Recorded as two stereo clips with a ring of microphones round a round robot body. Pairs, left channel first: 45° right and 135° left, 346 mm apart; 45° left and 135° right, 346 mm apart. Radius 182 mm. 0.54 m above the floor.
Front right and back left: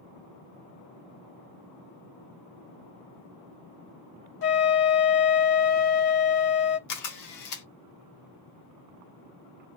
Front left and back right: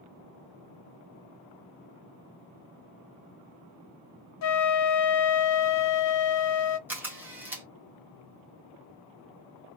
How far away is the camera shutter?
About 1.4 m.